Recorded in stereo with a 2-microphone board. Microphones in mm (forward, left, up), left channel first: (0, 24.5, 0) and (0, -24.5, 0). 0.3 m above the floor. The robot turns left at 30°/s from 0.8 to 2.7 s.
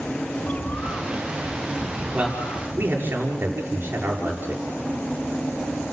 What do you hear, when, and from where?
0.4 s a bird: 140° left, 1.2 m; by 3.1 s 85° left, 1.2 m
2.1 s a man speaking: 25° right (ahead or behind), 6 m; by 4.6 s 40° right (ahead or behind), 6 m